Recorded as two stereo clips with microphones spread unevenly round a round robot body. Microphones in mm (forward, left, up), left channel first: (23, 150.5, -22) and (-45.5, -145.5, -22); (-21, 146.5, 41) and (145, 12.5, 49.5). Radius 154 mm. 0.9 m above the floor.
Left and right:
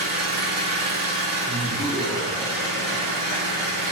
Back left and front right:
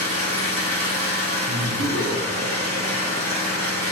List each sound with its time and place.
0.0 s an engine running: 60° right, 1.9 m
1.5 s laughter: 10° right, 0.8 m